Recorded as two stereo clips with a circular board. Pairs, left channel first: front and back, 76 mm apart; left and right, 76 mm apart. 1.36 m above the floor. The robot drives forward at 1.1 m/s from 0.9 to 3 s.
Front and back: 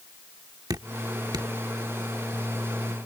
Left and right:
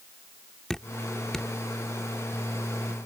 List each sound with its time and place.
0.7 s dripping: 170° left; by 1.5 s 175° left